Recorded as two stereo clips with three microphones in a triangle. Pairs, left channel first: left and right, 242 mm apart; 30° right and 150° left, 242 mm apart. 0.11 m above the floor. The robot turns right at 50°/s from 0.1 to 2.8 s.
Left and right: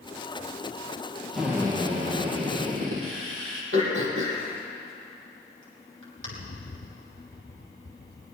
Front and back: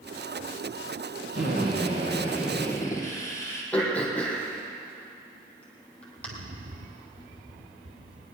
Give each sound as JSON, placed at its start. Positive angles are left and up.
{"t": 1.3, "sound": "a drill", "azimuth_deg": 180, "distance_m": 4.0}
{"t": 3.7, "sound": "throat clearing", "azimuth_deg": -115, "distance_m": 3.0}
{"t": 6.2, "sound": "a rattle", "azimuth_deg": 125, "distance_m": 1.7}